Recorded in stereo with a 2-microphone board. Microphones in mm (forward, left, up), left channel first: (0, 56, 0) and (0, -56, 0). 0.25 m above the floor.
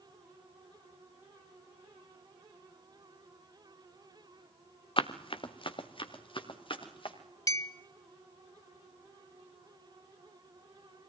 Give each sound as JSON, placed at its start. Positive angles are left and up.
{"t": 5.0, "sound": "running footsteps", "side_deg": 50, "distance_m": 1.0}
{"t": 7.5, "sound": "a clink", "side_deg": 30, "distance_m": 0.8}